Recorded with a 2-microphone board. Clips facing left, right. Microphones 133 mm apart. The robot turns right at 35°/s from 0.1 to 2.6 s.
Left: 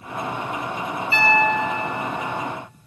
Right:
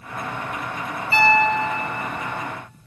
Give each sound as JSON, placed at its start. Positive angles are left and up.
{"t": 1.1, "sound": "a piano", "azimuth_deg": -40, "distance_m": 1.2}